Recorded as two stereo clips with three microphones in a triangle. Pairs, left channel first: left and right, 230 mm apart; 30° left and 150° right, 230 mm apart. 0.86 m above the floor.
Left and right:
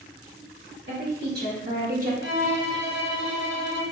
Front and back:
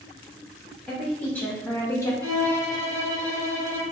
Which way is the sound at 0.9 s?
55° right.